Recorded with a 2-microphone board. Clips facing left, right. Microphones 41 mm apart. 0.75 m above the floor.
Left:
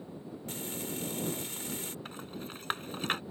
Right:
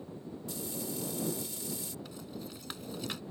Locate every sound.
0.5 s frying: 50° left (ahead or behind)
2.0 s a rattle: 45° left (ahead or behind)